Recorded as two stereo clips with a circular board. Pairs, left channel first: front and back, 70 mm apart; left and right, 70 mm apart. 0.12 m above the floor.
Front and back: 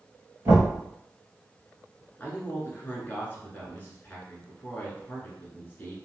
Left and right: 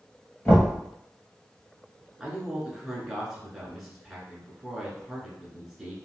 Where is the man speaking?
10° right, 1.3 m.